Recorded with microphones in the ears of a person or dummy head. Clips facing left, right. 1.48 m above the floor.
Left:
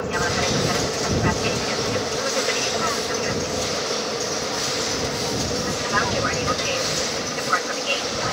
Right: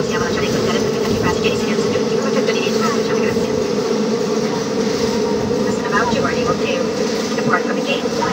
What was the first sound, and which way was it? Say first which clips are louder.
An aircraft: right 7 dB; 50° right (ahead or behind).